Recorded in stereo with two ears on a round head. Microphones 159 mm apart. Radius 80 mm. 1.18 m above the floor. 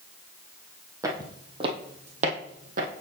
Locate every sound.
1.0 s footsteps: 20° right (ahead or behind), 1.8 m; by 2.9 s 50° right (ahead or behind), 1.9 m